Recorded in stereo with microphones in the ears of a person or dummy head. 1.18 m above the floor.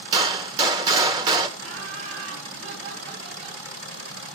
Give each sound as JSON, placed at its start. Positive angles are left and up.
{"t": 0.1, "sound": "a gunshot", "side_deg": -20, "distance_m": 1.1}
{"t": 1.6, "sound": "laughter", "side_deg": -50, "distance_m": 3.0}